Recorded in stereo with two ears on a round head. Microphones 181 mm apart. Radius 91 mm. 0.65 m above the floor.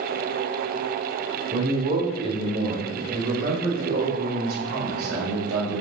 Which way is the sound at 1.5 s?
40° right (ahead or behind).